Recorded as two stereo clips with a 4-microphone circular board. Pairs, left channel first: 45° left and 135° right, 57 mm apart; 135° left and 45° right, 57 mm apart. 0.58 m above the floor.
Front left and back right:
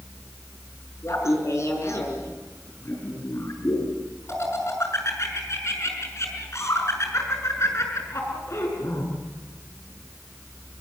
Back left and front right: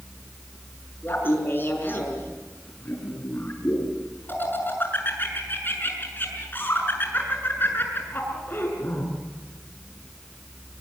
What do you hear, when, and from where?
1.0 s laughter: 80° left, 6 m